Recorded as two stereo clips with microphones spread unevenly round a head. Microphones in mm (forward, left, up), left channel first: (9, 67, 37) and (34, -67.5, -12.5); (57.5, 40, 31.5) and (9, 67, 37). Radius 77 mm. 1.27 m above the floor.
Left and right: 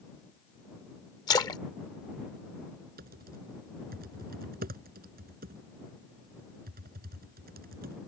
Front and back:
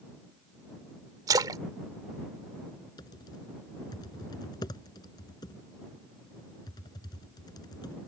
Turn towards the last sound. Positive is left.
turn(degrees=-50)